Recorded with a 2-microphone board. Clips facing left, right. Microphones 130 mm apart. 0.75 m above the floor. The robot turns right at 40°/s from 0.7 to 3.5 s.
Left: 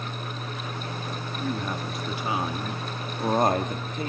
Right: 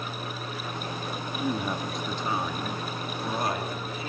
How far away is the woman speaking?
About 1.7 m.